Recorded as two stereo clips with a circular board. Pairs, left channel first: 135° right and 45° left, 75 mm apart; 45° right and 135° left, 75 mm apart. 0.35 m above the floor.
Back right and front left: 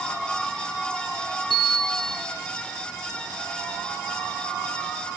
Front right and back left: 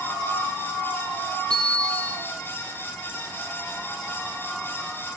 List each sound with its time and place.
1.5 s a bicycle bell: 130° right, 8.5 m